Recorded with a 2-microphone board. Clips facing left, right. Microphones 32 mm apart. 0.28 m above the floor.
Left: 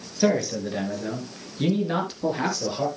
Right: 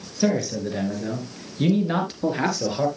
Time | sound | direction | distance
0.2 | a man speaking | 10° left (ahead or behind) | 4 m